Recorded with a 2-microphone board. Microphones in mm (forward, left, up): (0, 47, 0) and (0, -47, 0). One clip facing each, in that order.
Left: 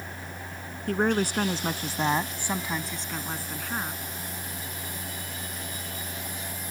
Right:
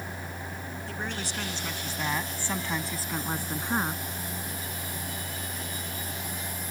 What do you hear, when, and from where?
0.9 s a woman speaking: 60° left (ahead or behind); by 4.0 s 30° right (ahead or behind)